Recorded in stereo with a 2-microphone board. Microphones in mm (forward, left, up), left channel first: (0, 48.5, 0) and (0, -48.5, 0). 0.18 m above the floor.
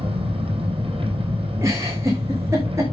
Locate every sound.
0.0 s an engine running: 75° right (ahead or behind), 3 m
1.6 s a giggle: 30° right (ahead or behind), 4 m